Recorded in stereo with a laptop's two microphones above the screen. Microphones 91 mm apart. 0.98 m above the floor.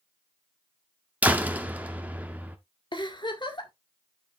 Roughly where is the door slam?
Centre.